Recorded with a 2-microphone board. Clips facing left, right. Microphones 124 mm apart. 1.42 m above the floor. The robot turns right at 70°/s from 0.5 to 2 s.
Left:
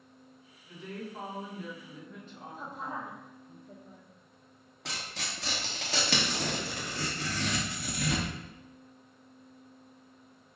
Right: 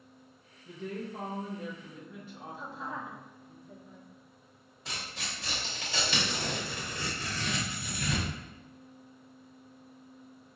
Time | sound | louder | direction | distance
0.7 | a woman speaking | right 3 dB | 105° right | 2.0 m
2.5 | a woman speaking | left 1 dB | 50° left (ahead or behind) | 1.4 m
4.8 | tearing paper | left 1 dB | 75° left (ahead or behind) | 1.1 m